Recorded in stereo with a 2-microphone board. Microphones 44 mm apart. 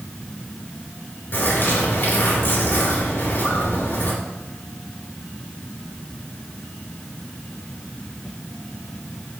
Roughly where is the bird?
Left.